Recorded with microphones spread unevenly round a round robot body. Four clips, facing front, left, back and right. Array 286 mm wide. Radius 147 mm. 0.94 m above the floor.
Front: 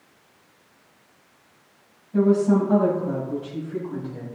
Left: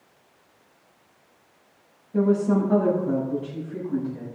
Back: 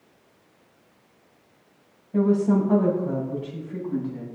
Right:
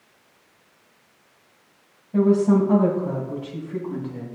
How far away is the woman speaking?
About 6 m.